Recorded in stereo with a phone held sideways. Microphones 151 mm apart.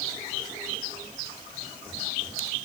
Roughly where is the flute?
I don't hear a flute.